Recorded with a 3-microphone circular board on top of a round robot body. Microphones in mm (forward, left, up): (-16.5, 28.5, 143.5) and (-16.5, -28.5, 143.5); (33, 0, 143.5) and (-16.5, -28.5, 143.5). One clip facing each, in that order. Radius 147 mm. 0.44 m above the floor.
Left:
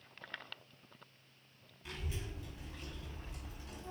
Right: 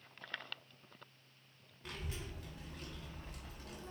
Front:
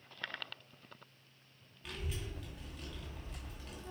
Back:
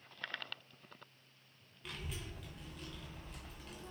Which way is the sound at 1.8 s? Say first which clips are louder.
Left 1 dB, front 2 dB; 60° right.